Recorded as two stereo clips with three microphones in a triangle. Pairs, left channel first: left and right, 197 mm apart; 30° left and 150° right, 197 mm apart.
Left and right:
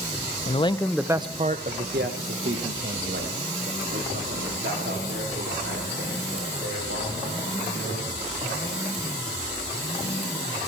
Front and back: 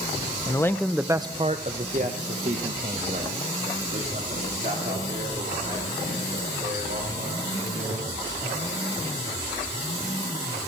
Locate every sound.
0.5 s a man speaking: 85° left, 0.6 m; by 8.8 s 105° right, 6 m